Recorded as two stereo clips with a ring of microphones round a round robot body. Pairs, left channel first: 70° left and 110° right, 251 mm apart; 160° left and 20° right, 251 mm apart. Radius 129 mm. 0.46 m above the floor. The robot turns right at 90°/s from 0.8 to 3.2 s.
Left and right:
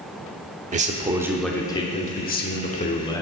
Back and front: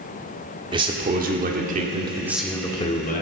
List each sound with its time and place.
0.7 s a man speaking: 80° right, 1.2 m; by 3.2 s 140° left, 1.2 m